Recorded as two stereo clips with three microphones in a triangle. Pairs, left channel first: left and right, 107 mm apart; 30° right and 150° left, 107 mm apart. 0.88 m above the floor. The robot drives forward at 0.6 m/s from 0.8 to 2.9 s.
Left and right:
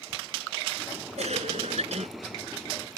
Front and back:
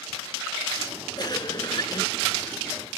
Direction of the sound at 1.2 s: 80° right.